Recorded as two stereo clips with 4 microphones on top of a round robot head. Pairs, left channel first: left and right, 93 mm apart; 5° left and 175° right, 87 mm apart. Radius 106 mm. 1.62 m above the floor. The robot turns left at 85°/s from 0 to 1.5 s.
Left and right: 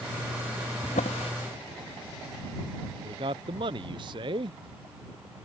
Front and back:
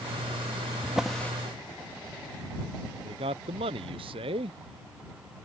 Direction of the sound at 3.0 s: 140° right.